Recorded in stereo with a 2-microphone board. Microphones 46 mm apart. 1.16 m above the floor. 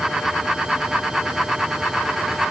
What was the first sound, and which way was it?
Only background noise.